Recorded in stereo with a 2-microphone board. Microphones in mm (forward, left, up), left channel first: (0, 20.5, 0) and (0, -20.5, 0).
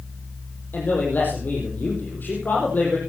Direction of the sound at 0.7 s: 50° left (ahead or behind).